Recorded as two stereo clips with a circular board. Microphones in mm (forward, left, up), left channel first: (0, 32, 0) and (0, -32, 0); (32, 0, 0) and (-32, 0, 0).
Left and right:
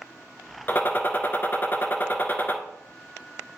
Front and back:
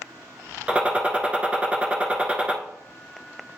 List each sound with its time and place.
0.7 s a gunshot: 120° left, 0.8 m